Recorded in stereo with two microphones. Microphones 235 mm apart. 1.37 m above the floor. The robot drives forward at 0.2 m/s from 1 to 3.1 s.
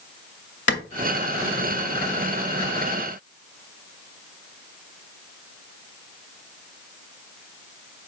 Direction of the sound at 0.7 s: 55° left (ahead or behind).